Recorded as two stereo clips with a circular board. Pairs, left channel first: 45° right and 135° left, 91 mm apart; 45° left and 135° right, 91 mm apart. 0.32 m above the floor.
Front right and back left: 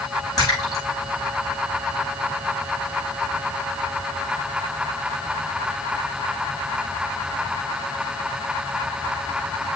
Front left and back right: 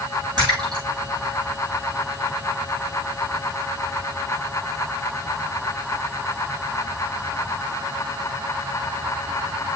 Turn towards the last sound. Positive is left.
turn(degrees=-95)